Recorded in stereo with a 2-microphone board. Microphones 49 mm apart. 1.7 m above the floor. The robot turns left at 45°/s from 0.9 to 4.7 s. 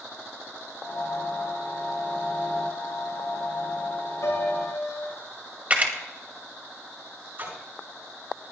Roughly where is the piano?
Left.